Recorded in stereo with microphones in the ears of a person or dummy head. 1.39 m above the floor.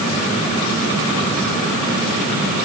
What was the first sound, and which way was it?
Only background noise.